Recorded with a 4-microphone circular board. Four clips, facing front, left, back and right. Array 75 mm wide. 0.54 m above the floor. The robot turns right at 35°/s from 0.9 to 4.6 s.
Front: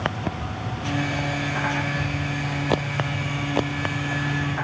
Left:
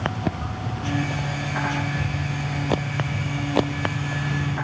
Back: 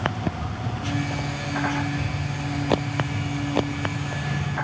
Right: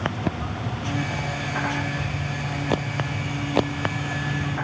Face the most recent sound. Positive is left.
turn(degrees=160)